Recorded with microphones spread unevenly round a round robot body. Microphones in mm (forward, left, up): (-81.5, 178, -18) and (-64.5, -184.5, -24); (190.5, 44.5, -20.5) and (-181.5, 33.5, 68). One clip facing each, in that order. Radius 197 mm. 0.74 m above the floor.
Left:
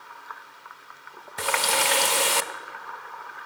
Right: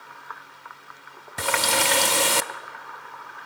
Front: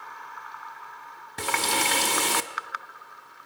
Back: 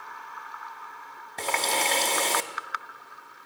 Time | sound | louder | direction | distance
1.4 | a running tap | right 2 dB, even | 65° right | 0.7 m